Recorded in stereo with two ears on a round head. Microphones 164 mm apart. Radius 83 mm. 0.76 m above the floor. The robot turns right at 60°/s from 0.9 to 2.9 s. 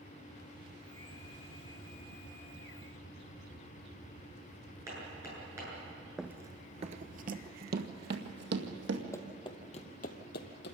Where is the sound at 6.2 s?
Centre (ahead or behind), 0.7 m; by 9.0 s 70° right (ahead or behind), 2.5 m.